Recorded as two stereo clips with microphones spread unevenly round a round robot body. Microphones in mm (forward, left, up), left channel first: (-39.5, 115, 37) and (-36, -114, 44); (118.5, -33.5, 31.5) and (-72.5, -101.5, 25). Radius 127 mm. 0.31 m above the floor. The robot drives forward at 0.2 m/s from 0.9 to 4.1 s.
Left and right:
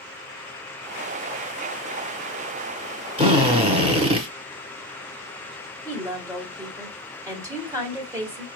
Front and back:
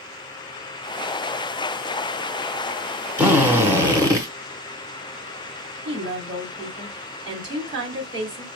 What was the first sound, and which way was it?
A drill, 95° right.